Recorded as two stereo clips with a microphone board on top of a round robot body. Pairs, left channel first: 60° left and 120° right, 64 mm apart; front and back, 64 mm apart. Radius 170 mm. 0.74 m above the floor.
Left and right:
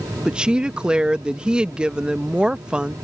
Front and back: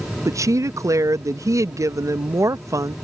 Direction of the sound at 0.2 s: 165° left.